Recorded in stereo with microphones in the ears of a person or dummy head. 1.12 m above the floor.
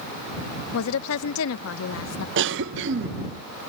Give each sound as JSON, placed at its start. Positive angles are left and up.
{"t": 0.7, "sound": "a woman speaking", "side_deg": 75}
{"t": 2.4, "sound": "a cough", "side_deg": -60}